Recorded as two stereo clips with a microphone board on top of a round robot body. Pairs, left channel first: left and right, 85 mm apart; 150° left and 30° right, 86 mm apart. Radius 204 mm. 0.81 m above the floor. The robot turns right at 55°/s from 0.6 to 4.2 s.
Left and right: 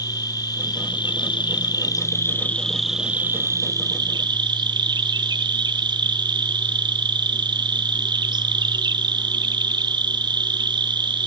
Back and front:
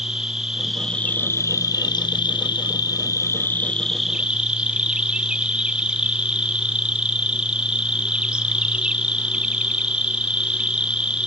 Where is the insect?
55° left, 0.9 m; by 11.3 s 105° right, 0.9 m.